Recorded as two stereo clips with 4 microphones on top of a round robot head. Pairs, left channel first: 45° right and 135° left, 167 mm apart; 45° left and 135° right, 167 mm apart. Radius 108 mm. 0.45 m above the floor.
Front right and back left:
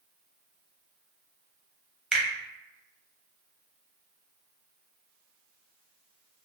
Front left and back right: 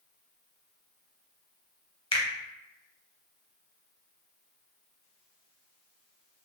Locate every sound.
2.1 s a finger snap: 50° left, 0.9 m